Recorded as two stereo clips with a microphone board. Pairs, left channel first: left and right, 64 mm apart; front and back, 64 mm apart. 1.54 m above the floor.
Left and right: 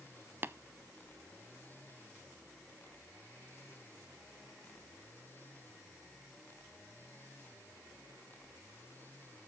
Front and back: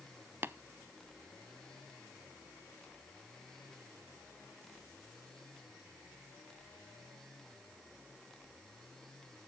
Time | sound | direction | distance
0.4 | tapping | 135° right | 0.5 m